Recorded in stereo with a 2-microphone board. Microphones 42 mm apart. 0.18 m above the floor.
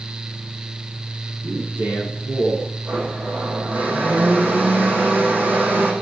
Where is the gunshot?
No gunshot in this recording.